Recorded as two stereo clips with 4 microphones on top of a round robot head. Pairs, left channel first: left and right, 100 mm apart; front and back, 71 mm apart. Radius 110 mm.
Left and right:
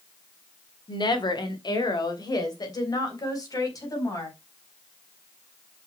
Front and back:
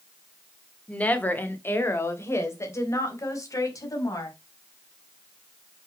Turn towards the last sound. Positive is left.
turn(degrees=35)